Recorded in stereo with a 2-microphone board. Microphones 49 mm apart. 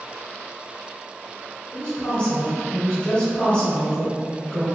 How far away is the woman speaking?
About 1.5 m.